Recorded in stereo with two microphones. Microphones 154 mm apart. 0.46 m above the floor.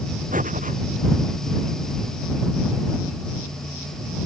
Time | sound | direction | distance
0.3 | breathing | 60° right (ahead or behind) | ?